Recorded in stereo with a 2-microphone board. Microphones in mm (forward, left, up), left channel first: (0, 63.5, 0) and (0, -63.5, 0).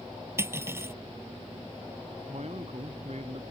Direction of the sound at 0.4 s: 20° right (ahead or behind).